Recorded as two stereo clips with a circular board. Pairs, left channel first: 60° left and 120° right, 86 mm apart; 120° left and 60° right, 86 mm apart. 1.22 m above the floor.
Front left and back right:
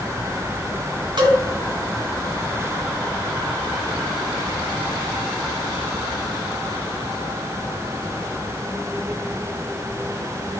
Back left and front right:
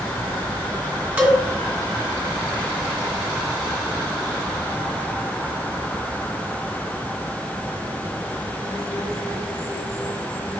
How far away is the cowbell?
About 1.6 m.